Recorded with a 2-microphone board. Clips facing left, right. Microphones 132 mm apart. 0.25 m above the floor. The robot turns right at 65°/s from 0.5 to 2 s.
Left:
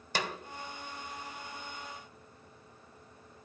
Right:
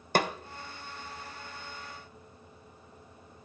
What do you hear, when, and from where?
0.1 s a snare drum: 55° right (ahead or behind), 0.7 m